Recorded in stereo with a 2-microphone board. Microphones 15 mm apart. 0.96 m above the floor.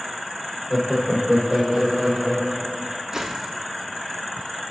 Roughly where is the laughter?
Right.